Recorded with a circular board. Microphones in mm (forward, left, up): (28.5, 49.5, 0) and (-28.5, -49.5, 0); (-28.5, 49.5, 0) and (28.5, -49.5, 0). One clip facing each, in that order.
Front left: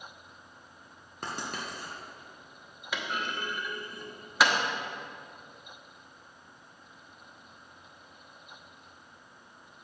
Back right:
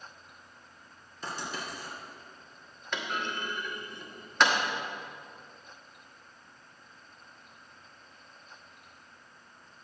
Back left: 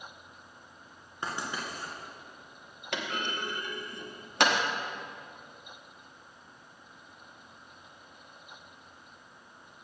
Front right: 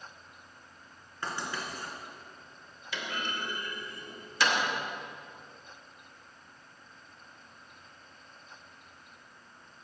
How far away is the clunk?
About 1.0 m.